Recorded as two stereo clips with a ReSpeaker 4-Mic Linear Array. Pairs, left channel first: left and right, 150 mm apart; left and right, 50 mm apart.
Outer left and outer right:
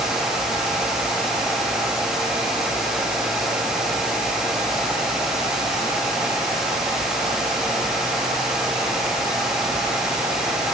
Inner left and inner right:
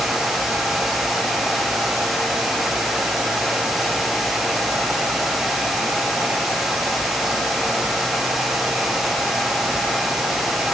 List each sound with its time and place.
Only background noise.